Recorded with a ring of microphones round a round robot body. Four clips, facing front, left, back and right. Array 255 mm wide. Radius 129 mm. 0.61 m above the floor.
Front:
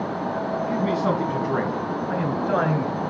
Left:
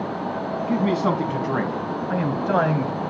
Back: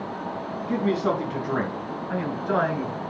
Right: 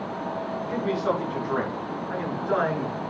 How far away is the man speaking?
About 4.5 m.